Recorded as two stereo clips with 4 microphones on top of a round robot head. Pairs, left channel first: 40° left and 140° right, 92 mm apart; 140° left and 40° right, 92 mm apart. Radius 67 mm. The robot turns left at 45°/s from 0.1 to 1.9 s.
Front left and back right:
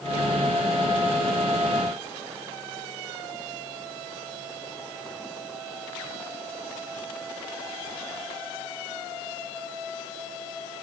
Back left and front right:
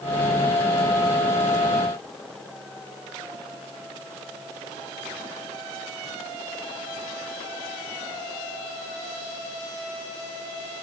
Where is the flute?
I don't hear a flute.